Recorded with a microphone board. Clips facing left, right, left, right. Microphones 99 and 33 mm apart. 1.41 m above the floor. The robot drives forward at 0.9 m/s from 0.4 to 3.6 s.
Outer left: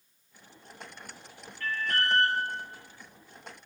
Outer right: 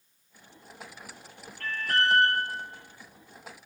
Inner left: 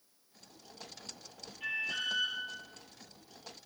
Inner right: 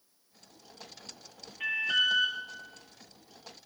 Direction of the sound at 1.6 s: 75° right (ahead or behind).